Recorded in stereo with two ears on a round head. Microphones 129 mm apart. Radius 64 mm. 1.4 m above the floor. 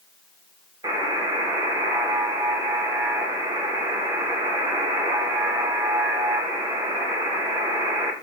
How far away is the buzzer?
About 0.8 m.